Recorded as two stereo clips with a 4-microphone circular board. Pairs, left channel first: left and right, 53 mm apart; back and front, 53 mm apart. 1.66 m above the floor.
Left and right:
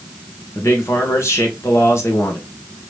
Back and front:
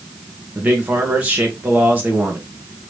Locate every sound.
0.6 s a man speaking: 60° left, 1.7 m